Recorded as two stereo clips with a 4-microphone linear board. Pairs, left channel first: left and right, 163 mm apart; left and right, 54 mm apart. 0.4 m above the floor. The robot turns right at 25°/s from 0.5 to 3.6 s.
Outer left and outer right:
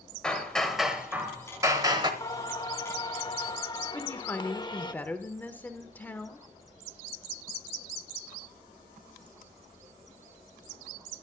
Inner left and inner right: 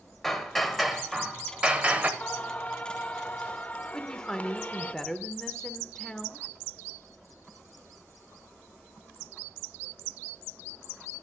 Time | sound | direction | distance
0.2 | hammering | 175° left | 1.0 m
2.2 | singing | 25° left (ahead or behind) | 0.7 m
3.9 | a woman speaking | 10° left (ahead or behind) | 0.9 m